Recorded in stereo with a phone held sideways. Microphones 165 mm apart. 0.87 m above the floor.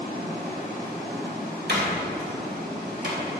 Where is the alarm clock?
No alarm clock in this recording.